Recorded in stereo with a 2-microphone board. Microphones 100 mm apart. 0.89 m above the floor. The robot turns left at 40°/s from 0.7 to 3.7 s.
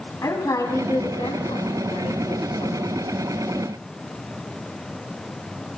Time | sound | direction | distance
0.2 | a woman speaking | 145° left | 6 m